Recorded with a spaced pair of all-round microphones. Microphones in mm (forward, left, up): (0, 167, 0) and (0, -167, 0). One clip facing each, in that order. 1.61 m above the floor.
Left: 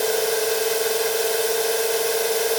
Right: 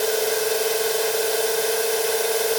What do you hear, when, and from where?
Only background noise.